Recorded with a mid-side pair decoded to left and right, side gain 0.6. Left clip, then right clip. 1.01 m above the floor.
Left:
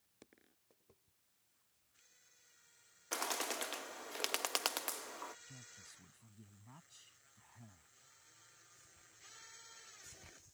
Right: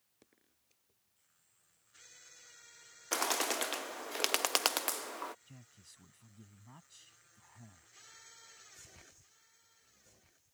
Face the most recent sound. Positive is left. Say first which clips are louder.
# left 4 dB
turn(degrees=-15)